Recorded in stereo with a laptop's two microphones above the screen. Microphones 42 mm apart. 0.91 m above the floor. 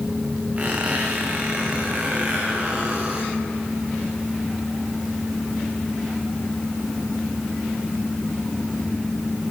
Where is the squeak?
35° right (ahead or behind), 3 m.